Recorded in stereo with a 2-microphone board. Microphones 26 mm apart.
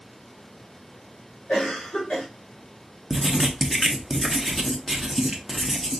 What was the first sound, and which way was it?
A cough, 75° left (ahead or behind).